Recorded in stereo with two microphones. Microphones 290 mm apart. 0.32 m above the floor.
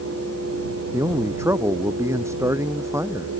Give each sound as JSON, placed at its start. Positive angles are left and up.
{"t": 0.9, "sound": "a man speaking", "side_deg": -10}